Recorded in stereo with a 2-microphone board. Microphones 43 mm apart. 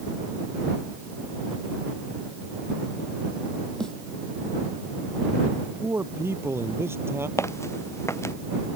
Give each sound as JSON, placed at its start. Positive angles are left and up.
{"t": 3.8, "sound": "a snare drum", "side_deg": 15}
{"t": 5.6, "sound": "a man speaking", "side_deg": -65}
{"t": 7.4, "sound": "footsteps", "side_deg": 85}